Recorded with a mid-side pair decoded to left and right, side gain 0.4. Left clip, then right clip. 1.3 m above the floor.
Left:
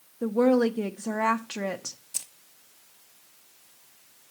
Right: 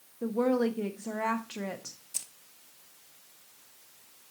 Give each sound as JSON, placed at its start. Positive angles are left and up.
{"t": 0.2, "sound": "a woman speaking", "azimuth_deg": 45, "distance_m": 0.7}
{"t": 2.1, "sound": "keys jangling", "azimuth_deg": 20, "distance_m": 0.8}